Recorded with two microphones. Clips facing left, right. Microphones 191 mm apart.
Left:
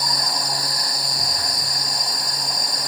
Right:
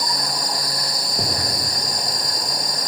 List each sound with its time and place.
1.2 s an explosion: 70° right (ahead or behind)